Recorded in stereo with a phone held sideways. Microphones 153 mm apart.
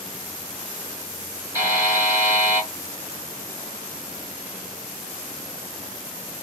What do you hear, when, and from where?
1.6 s a buzzer: 20° right (ahead or behind), 2 m